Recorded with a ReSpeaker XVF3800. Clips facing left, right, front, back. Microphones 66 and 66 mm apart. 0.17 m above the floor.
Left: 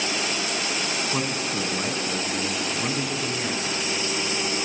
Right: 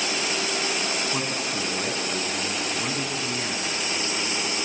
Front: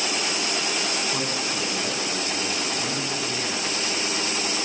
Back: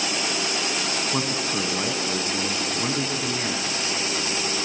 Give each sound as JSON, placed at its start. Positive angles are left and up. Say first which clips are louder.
{"t": 1.1, "sound": "a man speaking", "louder": "left 1 dB, back 2 dB", "azimuth_deg": 165, "distance_m": 1.1}